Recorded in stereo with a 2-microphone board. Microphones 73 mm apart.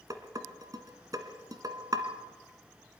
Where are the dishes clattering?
60° right (ahead or behind), 1.7 m.